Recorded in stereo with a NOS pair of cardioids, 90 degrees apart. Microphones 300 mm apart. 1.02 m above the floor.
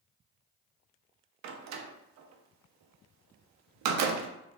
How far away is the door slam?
About 0.5 m.